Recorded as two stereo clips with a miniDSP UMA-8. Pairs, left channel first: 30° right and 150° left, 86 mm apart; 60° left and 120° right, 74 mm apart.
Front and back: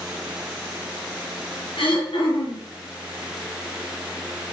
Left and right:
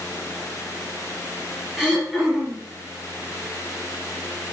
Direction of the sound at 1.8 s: 35° right.